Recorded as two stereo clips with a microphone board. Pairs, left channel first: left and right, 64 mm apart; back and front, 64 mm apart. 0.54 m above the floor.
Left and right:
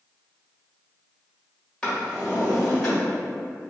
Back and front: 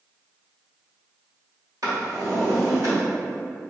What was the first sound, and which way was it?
A drawer, 15° left.